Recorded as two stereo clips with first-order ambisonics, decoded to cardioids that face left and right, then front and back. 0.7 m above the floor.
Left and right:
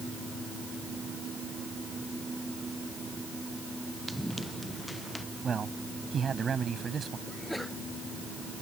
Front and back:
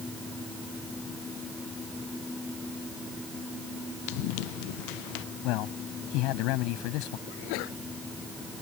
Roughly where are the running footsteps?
Ahead.